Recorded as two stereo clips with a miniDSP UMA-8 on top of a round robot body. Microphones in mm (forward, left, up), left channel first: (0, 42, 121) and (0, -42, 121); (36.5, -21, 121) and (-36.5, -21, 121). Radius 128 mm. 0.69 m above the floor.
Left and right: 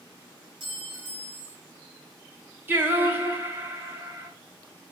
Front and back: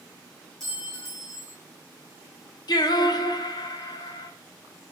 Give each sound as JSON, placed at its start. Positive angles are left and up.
{"t": 0.6, "sound": "a clink", "azimuth_deg": -85, "distance_m": 5.5}
{"t": 2.7, "sound": "singing", "azimuth_deg": -25, "distance_m": 2.0}